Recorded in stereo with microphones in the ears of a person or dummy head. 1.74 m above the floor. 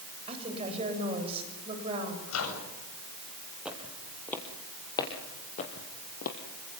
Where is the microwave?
85° left, 8 m.